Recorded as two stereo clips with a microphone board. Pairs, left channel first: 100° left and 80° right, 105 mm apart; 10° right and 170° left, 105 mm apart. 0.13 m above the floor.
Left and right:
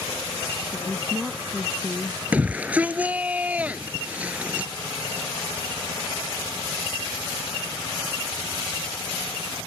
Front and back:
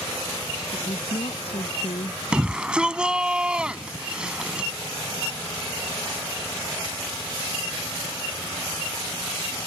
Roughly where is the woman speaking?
Ahead.